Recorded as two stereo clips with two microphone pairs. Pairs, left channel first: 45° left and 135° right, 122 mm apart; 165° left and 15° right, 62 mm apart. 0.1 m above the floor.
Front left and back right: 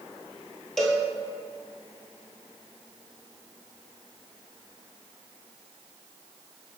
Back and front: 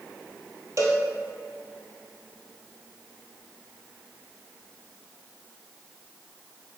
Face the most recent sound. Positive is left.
turn(degrees=-40)